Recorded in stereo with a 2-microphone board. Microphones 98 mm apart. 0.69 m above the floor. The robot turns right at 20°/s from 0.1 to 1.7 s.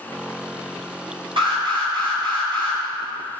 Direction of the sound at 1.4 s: 65° right (ahead or behind).